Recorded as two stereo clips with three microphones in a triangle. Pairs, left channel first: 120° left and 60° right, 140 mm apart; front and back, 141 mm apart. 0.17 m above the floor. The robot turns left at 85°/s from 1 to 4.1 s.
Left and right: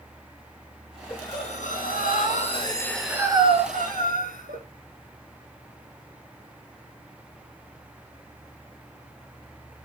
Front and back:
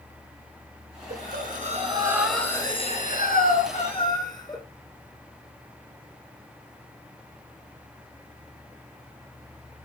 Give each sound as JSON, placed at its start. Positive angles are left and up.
{"t": 1.1, "sound": "breathing", "azimuth_deg": -170, "distance_m": 6.0}